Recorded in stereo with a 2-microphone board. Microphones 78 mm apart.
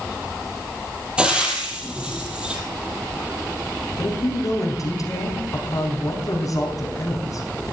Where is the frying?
15° right (ahead or behind), 2.5 m.